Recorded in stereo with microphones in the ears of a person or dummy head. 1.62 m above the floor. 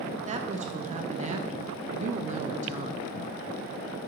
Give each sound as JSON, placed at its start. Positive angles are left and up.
{"t": 0.3, "sound": "a woman speaking", "side_deg": -40, "distance_m": 0.7}